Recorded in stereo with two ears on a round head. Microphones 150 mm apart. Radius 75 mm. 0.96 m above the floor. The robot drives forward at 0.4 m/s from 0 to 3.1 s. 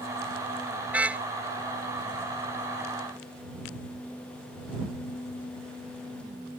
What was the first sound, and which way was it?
A car horn, 10° right (ahead or behind).